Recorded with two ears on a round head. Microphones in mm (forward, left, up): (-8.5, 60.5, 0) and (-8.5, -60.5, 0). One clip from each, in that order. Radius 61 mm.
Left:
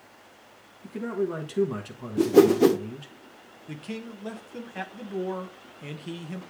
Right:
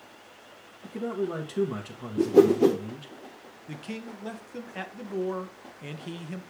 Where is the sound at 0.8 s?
10° left (ahead or behind), 1.1 m.